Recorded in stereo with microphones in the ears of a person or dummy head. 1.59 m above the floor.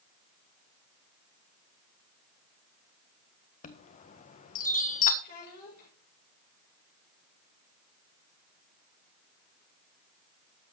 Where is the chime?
45° left (ahead or behind), 1.4 m.